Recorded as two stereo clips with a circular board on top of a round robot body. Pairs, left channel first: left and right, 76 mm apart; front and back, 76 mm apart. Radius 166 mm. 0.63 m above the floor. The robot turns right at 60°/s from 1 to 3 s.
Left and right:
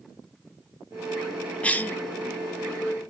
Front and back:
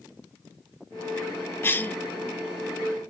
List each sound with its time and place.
1.6 s a cough: 30° left, 0.5 m; by 2.0 s 50° left, 0.5 m